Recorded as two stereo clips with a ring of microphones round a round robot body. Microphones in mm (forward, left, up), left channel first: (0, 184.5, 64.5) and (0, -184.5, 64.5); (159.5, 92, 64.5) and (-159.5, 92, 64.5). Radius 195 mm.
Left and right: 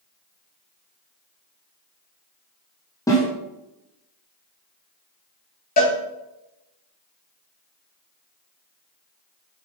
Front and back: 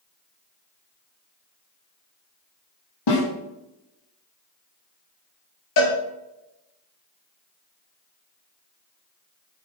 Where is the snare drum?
10° left, 5.5 m.